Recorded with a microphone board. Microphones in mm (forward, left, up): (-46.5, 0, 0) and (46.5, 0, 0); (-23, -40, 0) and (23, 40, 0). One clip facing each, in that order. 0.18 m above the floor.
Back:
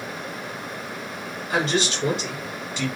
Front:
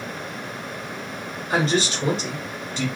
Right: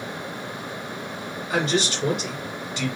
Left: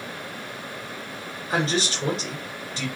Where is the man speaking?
20° left, 1.7 m.